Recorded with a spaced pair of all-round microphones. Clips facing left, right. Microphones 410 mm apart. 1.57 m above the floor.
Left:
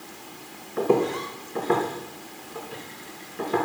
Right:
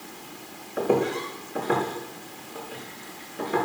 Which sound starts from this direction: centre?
Footsteps, at 0.8 s.